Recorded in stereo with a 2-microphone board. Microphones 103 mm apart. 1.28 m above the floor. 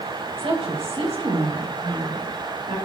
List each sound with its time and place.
0.4 s a woman speaking: 60° right (ahead or behind), 1.7 m; by 2.8 s 65° right (ahead or behind), 3.5 m